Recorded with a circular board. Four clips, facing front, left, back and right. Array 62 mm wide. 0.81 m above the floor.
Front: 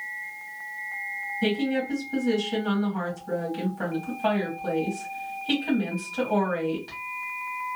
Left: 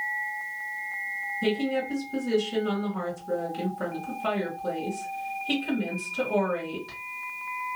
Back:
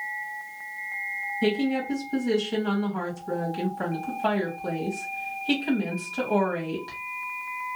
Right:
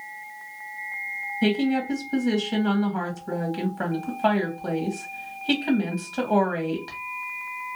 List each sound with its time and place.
1.4 s a woman speaking: 100° right, 1.6 m